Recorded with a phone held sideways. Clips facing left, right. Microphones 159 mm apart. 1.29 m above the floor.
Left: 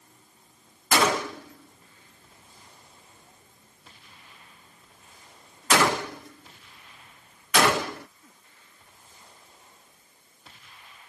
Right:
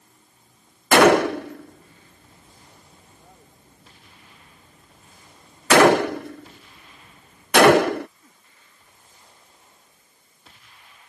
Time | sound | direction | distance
0.9 | a gunshot | 70° right (ahead or behind) | ?